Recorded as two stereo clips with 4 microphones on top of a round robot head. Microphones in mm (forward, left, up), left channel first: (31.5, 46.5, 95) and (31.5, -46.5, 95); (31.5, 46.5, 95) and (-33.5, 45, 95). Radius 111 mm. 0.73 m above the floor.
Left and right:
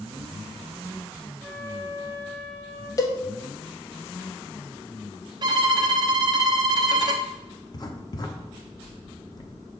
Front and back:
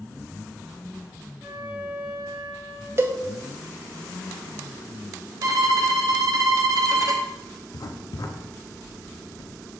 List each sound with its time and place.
1.4 s a flute: 110° left, 1.8 m
3.0 s a cowbell: 135° left, 0.9 m
5.4 s a violin: 140° right, 0.7 m
7.7 s writing: 40° left, 0.8 m